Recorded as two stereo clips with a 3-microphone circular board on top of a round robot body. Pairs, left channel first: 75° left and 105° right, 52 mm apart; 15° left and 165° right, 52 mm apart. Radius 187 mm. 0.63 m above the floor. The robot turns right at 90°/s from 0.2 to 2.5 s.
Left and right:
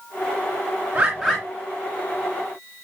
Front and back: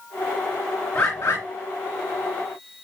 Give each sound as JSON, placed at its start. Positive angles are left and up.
{"t": 0.9, "sound": "a bird", "azimuth_deg": -40, "distance_m": 0.7}